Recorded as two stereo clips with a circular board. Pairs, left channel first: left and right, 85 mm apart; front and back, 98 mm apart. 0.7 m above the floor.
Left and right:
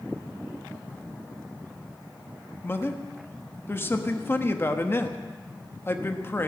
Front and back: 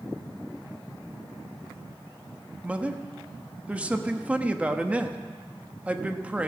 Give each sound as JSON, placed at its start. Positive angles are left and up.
{"t": 2.6, "sound": "a man speaking", "azimuth_deg": 115, "distance_m": 1.0}